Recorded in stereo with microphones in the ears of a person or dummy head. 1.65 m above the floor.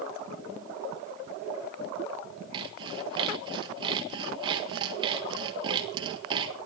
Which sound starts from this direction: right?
Sawing, at 2.5 s.